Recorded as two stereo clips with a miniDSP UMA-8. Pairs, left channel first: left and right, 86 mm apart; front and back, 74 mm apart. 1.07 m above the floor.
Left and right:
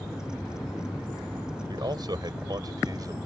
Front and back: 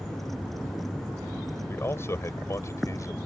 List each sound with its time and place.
1.7 s a man speaking: 55° right; by 3.1 s 45° right